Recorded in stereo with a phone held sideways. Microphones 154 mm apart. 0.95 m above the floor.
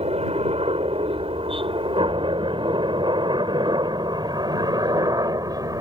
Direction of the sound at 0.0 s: 40° right (ahead or behind).